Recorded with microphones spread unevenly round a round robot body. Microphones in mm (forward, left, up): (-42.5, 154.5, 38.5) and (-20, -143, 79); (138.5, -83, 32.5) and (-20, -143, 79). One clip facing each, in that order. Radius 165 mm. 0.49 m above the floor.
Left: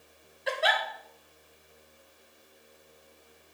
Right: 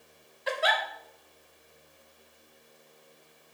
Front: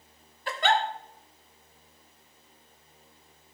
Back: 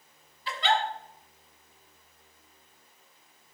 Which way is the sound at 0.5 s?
5° left.